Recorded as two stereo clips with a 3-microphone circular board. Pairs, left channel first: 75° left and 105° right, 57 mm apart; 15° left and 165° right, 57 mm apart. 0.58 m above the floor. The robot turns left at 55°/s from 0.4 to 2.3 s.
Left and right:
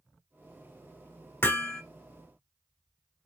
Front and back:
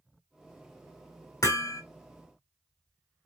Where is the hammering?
25° left, 1.1 m; by 1.8 s 5° left, 1.1 m.